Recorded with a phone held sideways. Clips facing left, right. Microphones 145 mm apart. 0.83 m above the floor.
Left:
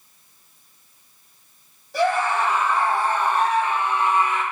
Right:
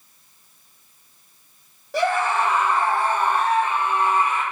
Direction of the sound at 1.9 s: 75° right (ahead or behind).